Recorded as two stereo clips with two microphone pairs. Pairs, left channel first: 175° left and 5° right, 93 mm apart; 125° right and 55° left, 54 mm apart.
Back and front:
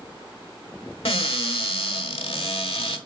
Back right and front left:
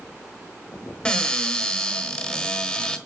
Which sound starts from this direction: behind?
A cupboard door, at 1.1 s.